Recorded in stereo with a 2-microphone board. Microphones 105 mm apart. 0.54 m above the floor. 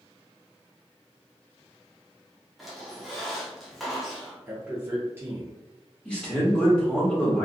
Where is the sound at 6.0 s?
10° left (ahead or behind), 0.9 m.